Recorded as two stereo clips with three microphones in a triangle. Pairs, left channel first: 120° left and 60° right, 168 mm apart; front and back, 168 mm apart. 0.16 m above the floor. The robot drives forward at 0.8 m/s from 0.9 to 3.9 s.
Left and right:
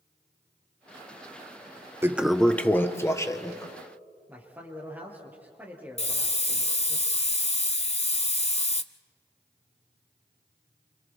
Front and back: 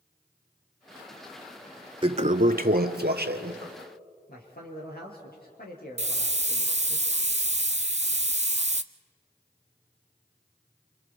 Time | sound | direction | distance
2.0 | a toilet flushing | 130° right | 0.5 m
4.3 | a man speaking | 20° left | 4.5 m
6.0 | a hiss | 155° left | 0.7 m